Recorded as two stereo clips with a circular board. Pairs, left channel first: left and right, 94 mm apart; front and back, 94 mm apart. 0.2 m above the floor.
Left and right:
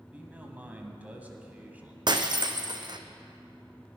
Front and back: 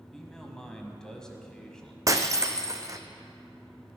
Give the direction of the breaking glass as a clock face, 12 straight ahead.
4 o'clock.